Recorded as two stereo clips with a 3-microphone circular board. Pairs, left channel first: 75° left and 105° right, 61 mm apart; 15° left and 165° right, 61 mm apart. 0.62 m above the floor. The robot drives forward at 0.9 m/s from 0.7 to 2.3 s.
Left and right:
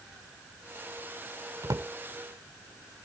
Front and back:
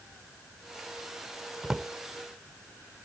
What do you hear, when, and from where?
1.6 s a drawer: 85° right; by 1.9 s 95° right